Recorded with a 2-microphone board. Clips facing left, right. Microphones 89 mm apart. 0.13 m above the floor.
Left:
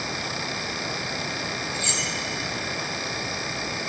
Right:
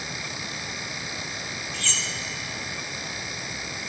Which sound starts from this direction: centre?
Cutlery clinking, at 1.7 s.